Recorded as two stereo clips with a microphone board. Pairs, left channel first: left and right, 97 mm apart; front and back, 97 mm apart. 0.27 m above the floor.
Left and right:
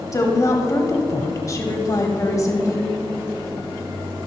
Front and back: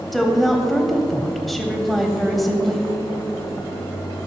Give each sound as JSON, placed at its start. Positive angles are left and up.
{"t": 0.1, "sound": "a woman speaking", "azimuth_deg": 85, "distance_m": 1.1}